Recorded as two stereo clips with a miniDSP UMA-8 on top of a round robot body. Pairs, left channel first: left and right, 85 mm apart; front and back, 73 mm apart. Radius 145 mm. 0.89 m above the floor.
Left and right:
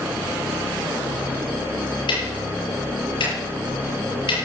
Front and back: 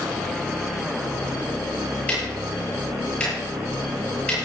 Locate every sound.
2.1 s ticking: 75° left, 7 m